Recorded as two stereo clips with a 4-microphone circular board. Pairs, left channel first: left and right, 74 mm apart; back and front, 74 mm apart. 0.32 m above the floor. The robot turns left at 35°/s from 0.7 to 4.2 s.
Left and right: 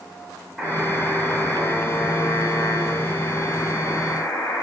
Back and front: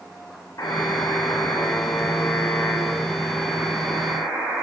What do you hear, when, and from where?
0.6 s a buzzer: 175° right, 1.0 m; by 4.6 s 60° left, 1.0 m